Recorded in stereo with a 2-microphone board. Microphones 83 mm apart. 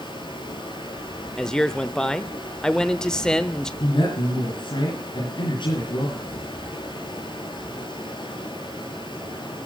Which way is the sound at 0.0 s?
85° left.